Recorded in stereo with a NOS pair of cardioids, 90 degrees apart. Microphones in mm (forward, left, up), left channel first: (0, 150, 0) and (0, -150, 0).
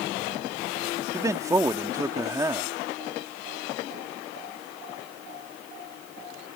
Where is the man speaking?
10° right.